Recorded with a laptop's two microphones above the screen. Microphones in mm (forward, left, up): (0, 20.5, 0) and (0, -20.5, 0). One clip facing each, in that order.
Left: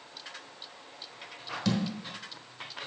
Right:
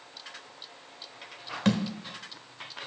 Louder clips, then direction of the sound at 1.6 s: Right 4 dB; 45° right (ahead or behind).